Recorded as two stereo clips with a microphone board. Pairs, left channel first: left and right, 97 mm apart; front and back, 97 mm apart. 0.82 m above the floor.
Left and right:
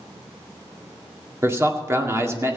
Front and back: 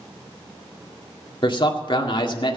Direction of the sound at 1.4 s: 30° right.